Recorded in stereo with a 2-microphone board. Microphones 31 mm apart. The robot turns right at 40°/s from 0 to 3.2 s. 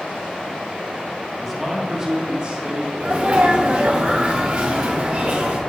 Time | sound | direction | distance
1.4 | a man speaking | 175° right | 1.3 m
3.0 | a sneeze | 45° right (ahead or behind) | 0.5 m